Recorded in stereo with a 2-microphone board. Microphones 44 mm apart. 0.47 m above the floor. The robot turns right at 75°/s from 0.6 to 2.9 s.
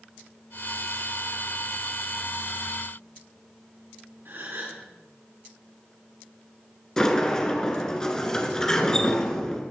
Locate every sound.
4.2 s a gasp: 60° right (ahead or behind), 4.5 m
7.0 s a sliding door: 10° left (ahead or behind), 1.9 m